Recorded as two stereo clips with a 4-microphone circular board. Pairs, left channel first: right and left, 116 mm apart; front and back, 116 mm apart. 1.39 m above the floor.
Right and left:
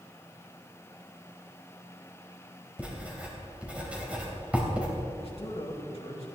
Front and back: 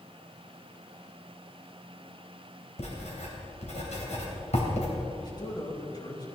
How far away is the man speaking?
About 2.5 m.